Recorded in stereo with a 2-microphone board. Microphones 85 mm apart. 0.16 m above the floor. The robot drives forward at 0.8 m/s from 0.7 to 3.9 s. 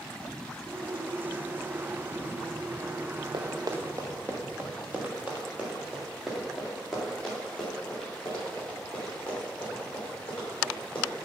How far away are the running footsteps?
About 1.1 m.